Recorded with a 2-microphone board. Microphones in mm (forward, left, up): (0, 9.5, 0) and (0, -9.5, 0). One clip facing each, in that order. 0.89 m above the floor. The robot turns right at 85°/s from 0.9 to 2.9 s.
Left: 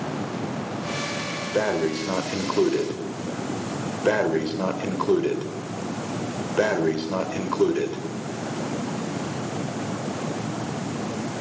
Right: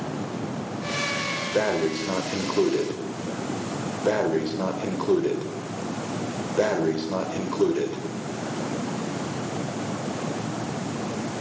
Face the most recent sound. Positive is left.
turn(degrees=110)